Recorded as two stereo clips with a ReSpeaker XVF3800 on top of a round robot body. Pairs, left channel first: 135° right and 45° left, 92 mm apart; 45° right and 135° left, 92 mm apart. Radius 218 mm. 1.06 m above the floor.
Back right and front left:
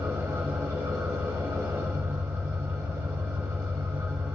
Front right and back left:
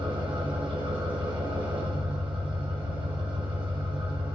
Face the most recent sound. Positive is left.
turn(degrees=105)